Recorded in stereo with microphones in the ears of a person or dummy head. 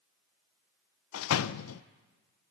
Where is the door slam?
80° left, 0.6 m.